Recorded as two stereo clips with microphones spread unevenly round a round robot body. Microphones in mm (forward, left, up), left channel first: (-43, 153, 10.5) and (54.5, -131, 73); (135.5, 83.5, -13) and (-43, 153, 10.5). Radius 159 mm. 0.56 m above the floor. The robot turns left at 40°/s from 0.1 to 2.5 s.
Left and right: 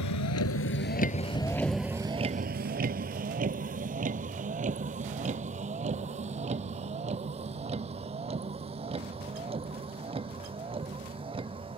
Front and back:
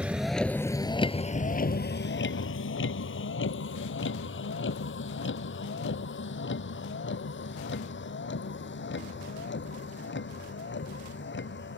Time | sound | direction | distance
0.0 | a vehicle | 75° left | ?